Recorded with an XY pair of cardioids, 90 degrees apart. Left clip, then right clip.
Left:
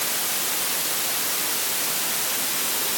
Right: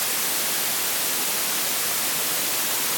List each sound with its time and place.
Only background noise.